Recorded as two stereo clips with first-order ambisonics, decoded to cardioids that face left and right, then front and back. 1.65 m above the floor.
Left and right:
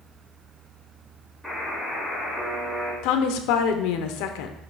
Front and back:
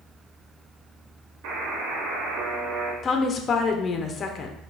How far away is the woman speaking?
About 0.9 m.